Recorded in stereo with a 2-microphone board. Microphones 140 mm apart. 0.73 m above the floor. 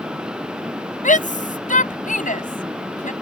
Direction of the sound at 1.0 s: 80° left.